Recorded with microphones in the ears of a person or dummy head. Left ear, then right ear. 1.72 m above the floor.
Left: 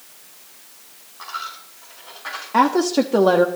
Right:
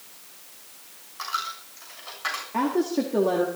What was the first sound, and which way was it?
A dropped coin, 65° right (ahead or behind).